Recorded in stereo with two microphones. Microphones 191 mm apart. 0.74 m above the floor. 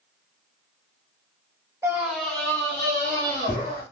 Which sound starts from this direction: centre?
A scream, at 1.8 s.